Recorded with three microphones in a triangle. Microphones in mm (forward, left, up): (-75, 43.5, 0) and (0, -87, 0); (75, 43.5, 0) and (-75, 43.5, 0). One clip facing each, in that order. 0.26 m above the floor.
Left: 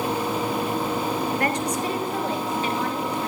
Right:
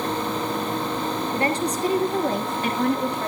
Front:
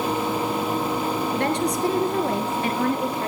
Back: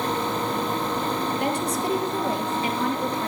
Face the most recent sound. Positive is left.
turn(degrees=-40)